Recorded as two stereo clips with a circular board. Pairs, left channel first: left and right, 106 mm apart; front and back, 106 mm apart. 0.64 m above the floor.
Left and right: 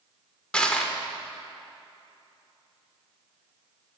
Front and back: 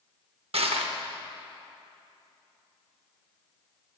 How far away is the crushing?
About 0.6 m.